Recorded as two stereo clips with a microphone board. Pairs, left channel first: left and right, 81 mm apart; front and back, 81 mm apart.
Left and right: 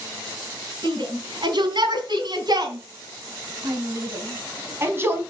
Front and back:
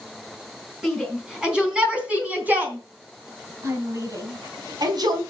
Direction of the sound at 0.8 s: 95° right.